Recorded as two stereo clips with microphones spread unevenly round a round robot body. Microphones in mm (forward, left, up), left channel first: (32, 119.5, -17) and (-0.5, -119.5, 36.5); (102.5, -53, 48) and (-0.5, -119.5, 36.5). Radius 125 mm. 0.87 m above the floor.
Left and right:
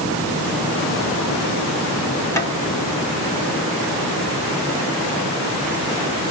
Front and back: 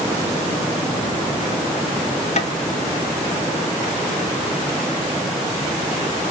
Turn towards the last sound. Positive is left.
turn(degrees=10)